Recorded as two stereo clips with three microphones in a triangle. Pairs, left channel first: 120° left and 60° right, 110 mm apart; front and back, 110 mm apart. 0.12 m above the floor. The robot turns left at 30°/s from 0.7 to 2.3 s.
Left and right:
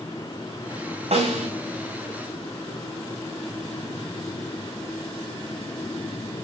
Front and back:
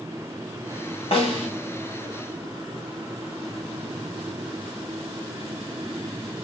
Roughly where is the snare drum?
Ahead right.